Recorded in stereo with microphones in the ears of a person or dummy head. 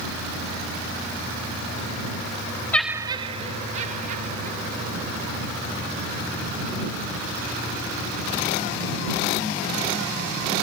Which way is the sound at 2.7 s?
10° left (ahead or behind).